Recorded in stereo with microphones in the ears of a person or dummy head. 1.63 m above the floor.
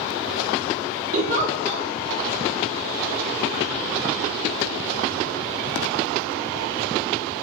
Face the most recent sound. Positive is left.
turn(degrees=-40)  # may be behind; listen again after turning